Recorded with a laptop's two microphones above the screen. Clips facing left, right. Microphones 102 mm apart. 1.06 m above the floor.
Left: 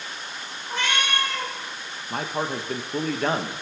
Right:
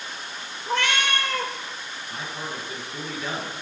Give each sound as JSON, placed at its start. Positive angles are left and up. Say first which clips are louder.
{"t": 0.7, "sound": "a cat meowing", "louder": "right 2 dB", "side_deg": -70, "distance_m": 1.9}
{"t": 2.1, "sound": "a man speaking", "louder": "left 8 dB", "side_deg": 60, "distance_m": 1.2}